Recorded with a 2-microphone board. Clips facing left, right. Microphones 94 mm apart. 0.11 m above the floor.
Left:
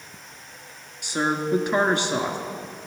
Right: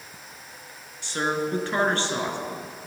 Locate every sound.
1.0 s a woman speaking: 15° left (ahead or behind), 1.1 m